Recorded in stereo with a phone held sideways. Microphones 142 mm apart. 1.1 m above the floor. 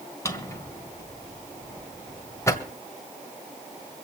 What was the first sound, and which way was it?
A drawer, 20° left (ahead or behind).